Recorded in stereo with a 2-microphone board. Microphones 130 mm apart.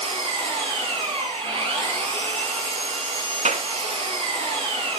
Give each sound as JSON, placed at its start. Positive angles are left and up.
{"t": 0.0, "sound": "an engine running", "side_deg": -40, "distance_m": 9.5}
{"t": 3.5, "sound": "a clap", "side_deg": -60, "distance_m": 1.9}